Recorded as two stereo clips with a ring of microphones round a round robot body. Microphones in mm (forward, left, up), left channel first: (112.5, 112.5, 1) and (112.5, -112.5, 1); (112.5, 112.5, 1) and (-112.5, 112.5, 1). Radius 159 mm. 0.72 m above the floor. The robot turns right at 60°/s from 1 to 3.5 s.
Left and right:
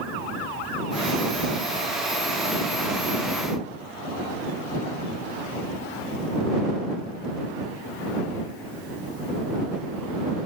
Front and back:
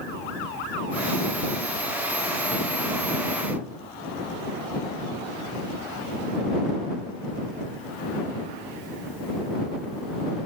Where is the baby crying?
I don't hear a baby crying.